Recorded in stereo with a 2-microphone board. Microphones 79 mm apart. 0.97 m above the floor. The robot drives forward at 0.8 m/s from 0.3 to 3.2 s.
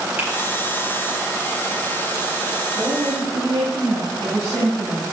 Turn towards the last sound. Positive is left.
turn(degrees=-30)  # may be behind; listen again after turning